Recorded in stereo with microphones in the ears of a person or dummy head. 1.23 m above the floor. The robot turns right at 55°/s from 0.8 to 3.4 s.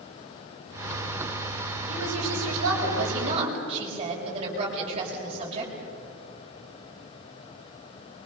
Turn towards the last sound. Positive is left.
turn(degrees=-30)